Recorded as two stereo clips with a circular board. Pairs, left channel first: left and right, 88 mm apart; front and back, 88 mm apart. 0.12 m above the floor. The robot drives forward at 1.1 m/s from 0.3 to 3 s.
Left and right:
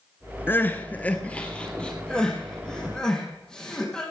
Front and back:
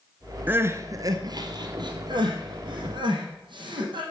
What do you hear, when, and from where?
0.5 s crying: 130° left, 0.9 m; by 4.0 s 175° left, 3.5 m